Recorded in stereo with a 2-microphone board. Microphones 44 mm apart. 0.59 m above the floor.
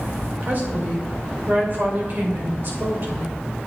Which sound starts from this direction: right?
A woman speaking, at 0.4 s.